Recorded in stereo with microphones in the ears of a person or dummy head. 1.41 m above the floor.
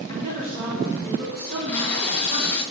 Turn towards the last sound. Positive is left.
turn(degrees=5)  # may be behind; listen again after turning